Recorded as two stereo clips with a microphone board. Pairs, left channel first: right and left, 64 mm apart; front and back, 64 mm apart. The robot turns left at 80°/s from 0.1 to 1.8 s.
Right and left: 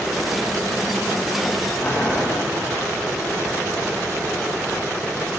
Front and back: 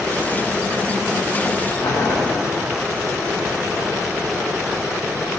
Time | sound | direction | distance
1.8 | boiling | 25° right | 2 m